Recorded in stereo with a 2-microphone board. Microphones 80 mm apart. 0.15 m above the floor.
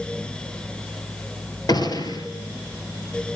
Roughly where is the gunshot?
Left.